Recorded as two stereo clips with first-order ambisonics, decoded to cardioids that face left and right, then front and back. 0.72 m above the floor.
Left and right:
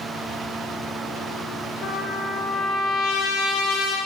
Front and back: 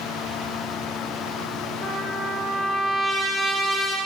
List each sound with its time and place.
1.8 s a trumpet: 105° left, 4 m